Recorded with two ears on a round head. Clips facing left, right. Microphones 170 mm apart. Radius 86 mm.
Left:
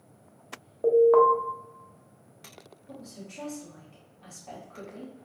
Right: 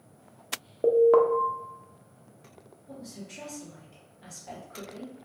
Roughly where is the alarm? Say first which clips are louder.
Left 1 dB; right.